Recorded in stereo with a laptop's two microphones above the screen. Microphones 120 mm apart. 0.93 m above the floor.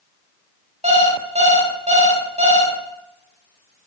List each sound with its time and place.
0.8 s an alarm clock: 65° right (ahead or behind), 1.1 m